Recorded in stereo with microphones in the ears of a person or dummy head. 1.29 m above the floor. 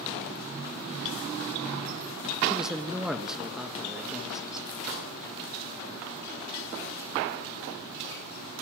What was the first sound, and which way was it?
A man speaking, 5° right (ahead or behind).